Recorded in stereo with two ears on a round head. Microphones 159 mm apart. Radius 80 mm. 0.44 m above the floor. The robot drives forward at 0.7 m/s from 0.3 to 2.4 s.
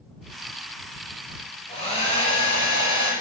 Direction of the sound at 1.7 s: 40° left (ahead or behind).